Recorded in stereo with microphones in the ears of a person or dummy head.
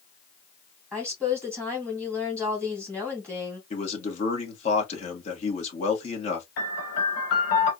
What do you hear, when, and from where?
0.9 s a woman speaking: 10° left (ahead or behind), 2.5 m
3.7 s a man speaking: 40° left (ahead or behind), 2 m
6.6 s a piano: 65° left (ahead or behind), 2.0 m